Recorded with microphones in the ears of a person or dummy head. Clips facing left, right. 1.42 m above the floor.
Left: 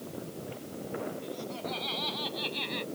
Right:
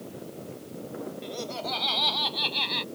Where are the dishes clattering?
I don't hear dishes clattering.